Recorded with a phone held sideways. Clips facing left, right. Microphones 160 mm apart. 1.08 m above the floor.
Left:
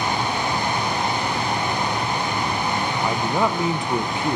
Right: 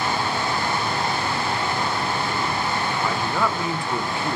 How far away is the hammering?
No hammering in this recording.